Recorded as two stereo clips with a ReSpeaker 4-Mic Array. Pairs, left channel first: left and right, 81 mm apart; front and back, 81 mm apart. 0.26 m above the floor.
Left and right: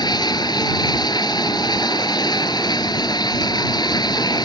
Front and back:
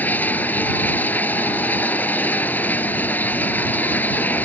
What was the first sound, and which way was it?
Running water, 65° left.